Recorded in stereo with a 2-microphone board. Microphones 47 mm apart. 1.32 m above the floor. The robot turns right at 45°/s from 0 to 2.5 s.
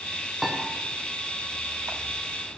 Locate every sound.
0.4 s a piano: 5° right (ahead or behind), 0.6 m; by 0.6 s 5° left (ahead or behind), 0.6 m